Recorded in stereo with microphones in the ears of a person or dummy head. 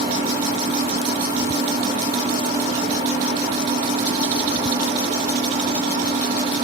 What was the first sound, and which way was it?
An engine running, 25° right (ahead or behind).